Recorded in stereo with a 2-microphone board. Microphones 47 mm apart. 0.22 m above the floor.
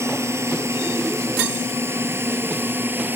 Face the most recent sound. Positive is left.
turn(degrees=-45)  # may be behind; listen again after turning